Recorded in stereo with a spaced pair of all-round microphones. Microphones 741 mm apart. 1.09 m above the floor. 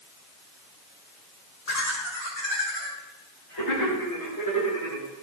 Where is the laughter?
55° left (ahead or behind), 4.5 m; by 5.1 s 15° left (ahead or behind), 5 m.